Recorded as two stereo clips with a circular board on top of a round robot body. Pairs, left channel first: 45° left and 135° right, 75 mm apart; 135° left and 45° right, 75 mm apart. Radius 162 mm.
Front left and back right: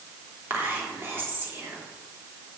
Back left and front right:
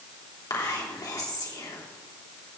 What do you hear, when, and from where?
0.5 s whispering: 165° left, 3 m